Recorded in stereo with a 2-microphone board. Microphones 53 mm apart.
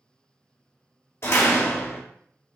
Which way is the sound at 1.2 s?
50° left (ahead or behind).